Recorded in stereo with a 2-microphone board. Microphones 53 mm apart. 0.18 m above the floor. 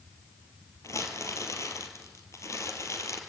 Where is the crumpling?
65° left (ahead or behind), 2.5 m.